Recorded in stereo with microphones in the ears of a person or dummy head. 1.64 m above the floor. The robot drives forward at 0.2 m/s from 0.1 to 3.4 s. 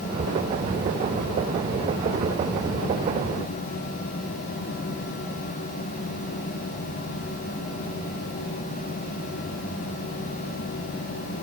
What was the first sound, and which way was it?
Only background noise.